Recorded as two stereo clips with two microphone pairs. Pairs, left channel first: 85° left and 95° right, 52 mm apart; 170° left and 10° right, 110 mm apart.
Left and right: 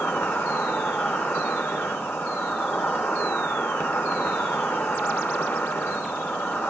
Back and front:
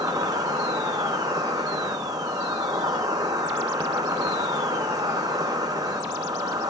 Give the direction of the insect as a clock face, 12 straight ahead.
11 o'clock.